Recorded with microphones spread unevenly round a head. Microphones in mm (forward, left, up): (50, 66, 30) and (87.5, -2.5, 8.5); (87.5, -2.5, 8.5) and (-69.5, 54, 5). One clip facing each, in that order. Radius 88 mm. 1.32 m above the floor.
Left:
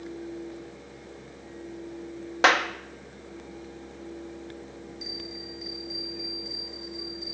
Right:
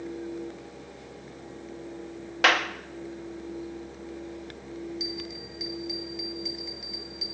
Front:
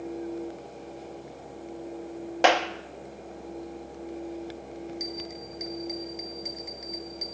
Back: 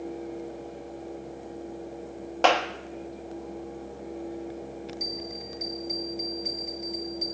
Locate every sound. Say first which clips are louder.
2.4 s a clap: left 2 dB, front 1 dB; 60° left, 1.7 m
5.0 s a bell: right 3 dB, even; 95° right, 1.4 m